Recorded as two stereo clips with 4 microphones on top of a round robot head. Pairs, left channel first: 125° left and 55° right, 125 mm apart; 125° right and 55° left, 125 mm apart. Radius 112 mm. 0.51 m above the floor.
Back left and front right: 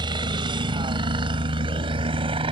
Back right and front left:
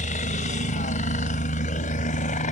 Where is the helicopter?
110° right; by 2.5 s 105° right.